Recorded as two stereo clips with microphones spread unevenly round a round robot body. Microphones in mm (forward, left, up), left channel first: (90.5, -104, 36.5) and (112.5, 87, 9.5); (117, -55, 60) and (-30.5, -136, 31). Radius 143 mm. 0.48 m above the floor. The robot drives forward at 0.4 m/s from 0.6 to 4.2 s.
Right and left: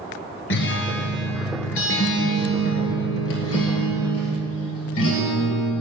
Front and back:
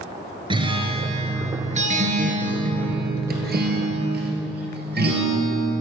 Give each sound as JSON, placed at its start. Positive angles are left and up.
{"t": 0.5, "sound": "a guitar", "azimuth_deg": -85, "distance_m": 1.7}